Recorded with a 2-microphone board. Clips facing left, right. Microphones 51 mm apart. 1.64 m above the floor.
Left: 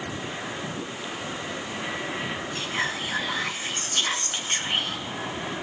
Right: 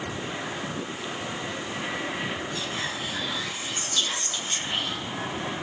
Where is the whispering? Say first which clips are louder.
Left 3 dB; 45° left (ahead or behind), 2.5 m.